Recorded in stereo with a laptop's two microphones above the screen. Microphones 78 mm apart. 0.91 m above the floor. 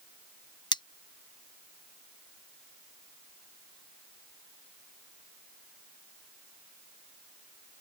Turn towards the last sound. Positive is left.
turn(degrees=75)  # may be behind; listen again after turning